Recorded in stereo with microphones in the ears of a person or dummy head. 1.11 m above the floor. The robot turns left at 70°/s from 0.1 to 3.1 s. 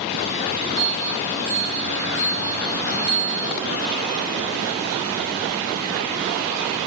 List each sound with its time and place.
0.8 s a bell: 40° right, 8.5 m; by 3.5 s 155° left, 8.5 m